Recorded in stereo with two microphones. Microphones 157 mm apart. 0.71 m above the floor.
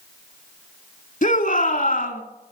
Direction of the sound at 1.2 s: 50° left (ahead or behind).